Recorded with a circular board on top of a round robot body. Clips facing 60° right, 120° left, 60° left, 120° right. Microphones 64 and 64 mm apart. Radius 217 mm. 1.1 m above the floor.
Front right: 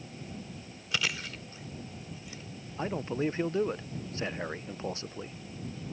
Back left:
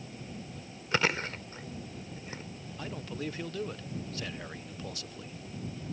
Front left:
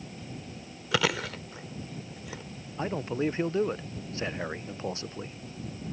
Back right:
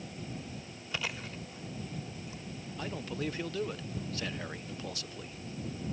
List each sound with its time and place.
0.9 s chewing: 65° left
2.8 s a man speaking: straight ahead